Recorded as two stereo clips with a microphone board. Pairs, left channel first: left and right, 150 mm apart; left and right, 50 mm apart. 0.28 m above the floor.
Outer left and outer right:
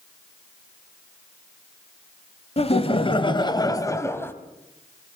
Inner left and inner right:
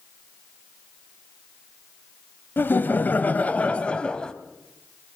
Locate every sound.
2.6 s laughter: 45° left (ahead or behind), 1.2 m; by 4.3 s 15° left (ahead or behind), 1.4 m